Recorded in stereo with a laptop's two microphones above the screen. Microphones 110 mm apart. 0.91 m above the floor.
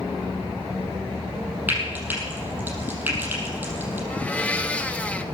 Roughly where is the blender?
Centre.